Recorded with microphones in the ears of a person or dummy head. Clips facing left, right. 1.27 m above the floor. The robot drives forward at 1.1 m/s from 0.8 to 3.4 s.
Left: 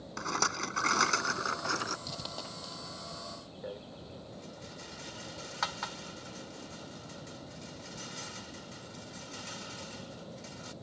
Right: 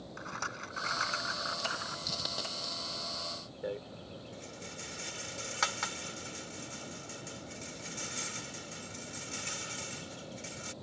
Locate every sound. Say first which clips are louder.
0.2 s a rattle: left 11 dB; 70° left (ahead or behind); by 2.0 s 60° left (ahead or behind)
2.1 s a dropped coin: right 1 dB; 15° right (ahead or behind)
3.6 s a rattle: right 5 dB; 35° right (ahead or behind)